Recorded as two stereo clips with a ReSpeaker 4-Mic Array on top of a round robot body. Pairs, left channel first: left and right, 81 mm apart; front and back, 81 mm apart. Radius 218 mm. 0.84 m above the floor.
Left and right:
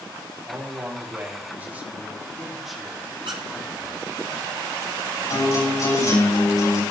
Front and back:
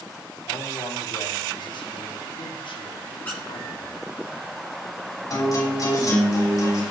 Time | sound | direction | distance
0.5 | a man speaking | 35° right | 3 m
3.2 | a squeak | 70° right | 0.7 m
5.3 | a guitar | 45° left | 6.5 m